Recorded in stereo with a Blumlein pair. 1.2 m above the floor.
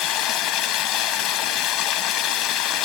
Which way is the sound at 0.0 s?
35° left.